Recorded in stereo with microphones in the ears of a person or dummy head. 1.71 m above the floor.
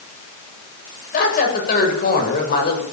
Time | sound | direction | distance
1.1 | a woman speaking | 55° left (ahead or behind) | 8 m